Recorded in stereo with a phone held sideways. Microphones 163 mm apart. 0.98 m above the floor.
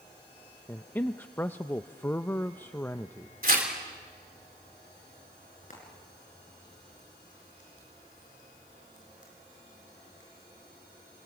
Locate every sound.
0.7 s a man speaking: 10° left (ahead or behind), 0.5 m
3.4 s tearing paper: 60° right (ahead or behind), 3.5 m
5.7 s frying: 50° left (ahead or behind), 6.5 m